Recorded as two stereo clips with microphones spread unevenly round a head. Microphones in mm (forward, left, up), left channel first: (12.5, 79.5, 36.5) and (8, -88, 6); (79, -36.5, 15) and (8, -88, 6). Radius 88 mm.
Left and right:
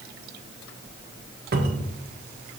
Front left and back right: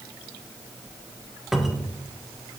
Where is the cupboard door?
55° right, 1.2 m.